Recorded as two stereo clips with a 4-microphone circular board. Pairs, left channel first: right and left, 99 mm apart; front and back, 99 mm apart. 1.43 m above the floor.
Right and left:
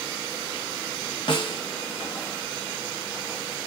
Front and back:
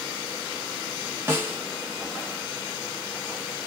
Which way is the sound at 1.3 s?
120° right.